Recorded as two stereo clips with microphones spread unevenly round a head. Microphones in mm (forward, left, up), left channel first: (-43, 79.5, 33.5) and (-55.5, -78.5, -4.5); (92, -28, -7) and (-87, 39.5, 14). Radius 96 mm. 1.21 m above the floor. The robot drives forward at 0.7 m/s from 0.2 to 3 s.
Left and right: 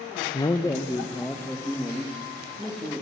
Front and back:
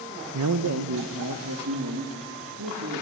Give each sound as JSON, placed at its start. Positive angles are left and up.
{"t": 0.3, "sound": "a man speaking", "azimuth_deg": 150, "distance_m": 0.8}